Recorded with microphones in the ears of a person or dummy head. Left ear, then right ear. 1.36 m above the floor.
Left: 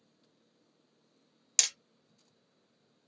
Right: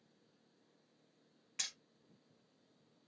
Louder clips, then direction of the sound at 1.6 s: Left 12 dB; 75° left (ahead or behind).